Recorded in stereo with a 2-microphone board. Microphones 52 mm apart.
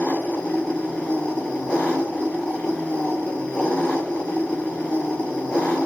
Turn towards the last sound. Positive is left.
turn(degrees=25)  # may be behind; listen again after turning